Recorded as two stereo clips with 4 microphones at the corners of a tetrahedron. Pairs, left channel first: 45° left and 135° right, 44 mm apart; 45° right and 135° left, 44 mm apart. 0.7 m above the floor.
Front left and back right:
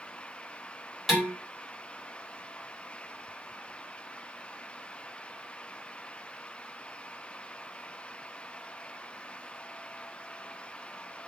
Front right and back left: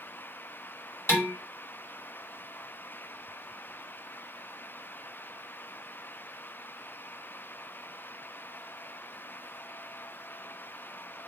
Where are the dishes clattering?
45° right, 2.5 m.